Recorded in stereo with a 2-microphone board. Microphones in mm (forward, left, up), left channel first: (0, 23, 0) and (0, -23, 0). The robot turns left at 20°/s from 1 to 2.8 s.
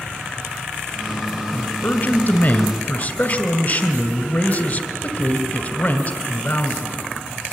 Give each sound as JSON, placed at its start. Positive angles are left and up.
{"t": 1.5, "sound": "a man speaking", "side_deg": 40, "distance_m": 2.0}